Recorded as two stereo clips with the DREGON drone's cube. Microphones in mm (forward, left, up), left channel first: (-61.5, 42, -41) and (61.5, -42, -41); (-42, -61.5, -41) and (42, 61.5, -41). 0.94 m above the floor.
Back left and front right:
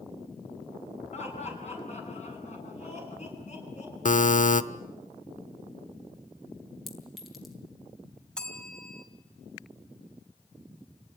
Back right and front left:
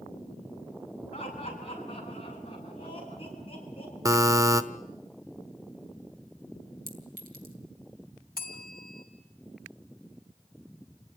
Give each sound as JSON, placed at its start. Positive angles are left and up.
{"t": 1.1, "sound": "laughter", "azimuth_deg": -175, "distance_m": 9.0}
{"t": 4.0, "sound": "a buzzer", "azimuth_deg": 120, "distance_m": 1.0}
{"t": 6.9, "sound": "a clink", "azimuth_deg": 55, "distance_m": 4.0}
{"t": 8.4, "sound": "a bell", "azimuth_deg": -130, "distance_m": 3.0}